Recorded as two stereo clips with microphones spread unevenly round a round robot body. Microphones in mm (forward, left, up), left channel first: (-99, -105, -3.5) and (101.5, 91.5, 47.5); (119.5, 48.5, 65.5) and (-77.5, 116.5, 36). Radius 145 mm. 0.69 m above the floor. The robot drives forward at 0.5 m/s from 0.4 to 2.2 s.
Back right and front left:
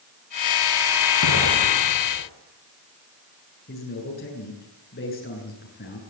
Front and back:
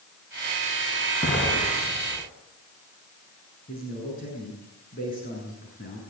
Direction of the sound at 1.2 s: 100° right.